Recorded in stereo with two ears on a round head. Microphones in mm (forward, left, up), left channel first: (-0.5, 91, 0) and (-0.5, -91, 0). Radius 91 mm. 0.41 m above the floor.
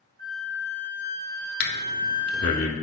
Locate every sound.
0.2 s a flute: 45° right (ahead or behind), 1.5 m
1.6 s breathing: 50° left (ahead or behind), 0.7 m